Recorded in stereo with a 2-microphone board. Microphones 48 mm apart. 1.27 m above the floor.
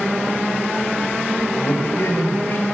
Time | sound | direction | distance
1.6 | a man speaking | 70° left (ahead or behind) | 6.5 m